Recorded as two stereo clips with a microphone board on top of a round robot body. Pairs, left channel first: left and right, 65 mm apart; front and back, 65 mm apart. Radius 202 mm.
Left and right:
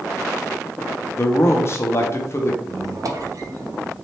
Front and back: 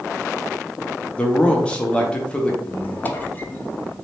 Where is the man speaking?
70° left, 0.9 m.